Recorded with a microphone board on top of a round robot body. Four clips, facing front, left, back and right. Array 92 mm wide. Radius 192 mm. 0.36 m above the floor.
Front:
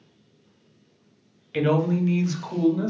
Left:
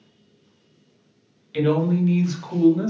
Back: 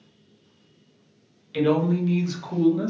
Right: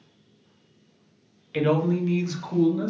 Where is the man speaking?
40° right, 1.3 m; by 2.9 s 90° left, 1.3 m.